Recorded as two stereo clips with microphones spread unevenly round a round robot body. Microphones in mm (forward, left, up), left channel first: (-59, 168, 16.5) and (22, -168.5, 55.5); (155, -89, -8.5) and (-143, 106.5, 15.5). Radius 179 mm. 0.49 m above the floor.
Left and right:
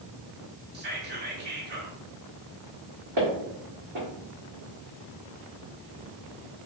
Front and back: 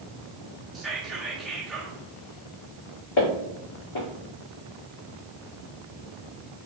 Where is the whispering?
115° right, 0.8 m.